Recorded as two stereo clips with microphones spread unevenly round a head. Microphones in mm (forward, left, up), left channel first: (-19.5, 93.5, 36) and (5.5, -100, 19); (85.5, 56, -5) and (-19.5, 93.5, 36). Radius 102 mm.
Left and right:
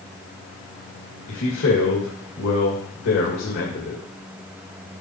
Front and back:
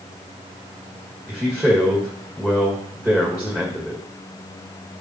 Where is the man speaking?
75° left, 2.0 m.